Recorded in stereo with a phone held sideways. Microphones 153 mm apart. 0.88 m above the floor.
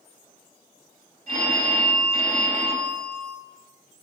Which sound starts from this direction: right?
A phone ringing, at 1.3 s.